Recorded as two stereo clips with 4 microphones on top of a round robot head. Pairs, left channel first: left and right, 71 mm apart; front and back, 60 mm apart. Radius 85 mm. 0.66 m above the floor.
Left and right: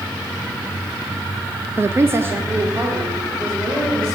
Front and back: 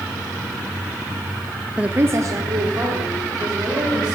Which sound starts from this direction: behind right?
A woman speaking, at 1.8 s.